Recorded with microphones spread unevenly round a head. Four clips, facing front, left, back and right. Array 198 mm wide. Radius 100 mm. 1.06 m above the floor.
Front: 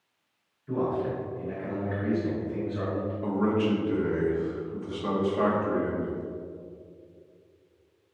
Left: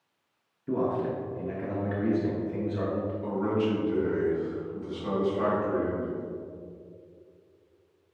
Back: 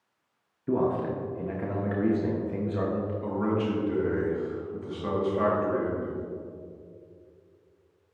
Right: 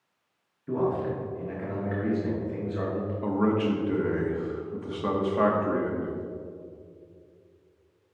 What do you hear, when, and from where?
0.7 s a man speaking: 170° left, 1.0 m
3.2 s a man speaking: 80° right, 1.4 m